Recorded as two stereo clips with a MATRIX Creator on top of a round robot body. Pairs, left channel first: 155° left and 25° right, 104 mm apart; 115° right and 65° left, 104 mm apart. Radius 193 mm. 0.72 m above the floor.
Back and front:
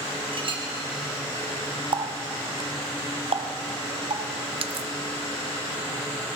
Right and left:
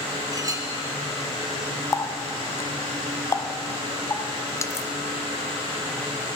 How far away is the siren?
I don't hear a siren.